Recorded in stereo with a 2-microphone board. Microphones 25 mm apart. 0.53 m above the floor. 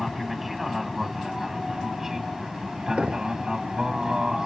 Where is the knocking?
60° right (ahead or behind).